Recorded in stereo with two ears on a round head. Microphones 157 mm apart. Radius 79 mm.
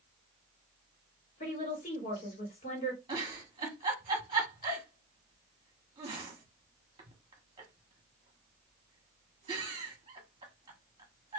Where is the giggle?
25° right (ahead or behind), 1.5 m.